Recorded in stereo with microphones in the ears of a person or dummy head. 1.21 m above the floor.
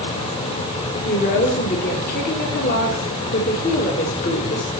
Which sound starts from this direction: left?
A woman speaking, at 1.1 s.